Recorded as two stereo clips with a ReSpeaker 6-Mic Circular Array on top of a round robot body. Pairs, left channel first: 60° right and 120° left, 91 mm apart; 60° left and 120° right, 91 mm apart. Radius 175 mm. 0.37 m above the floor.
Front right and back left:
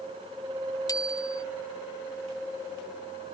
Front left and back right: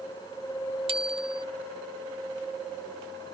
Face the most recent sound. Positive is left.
turn(degrees=-110)